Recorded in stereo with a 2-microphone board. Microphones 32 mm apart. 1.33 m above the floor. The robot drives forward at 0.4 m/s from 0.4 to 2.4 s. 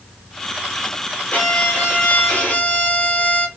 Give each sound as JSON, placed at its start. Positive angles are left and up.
{"t": 1.3, "sound": "a violin", "side_deg": 45, "distance_m": 1.1}